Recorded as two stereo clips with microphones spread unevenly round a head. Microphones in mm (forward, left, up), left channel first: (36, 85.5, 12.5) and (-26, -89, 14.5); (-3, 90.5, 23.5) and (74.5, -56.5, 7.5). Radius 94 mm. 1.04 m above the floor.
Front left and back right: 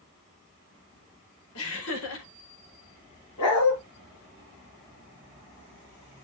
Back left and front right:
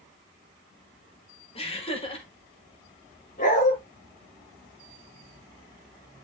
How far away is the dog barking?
About 6.5 m.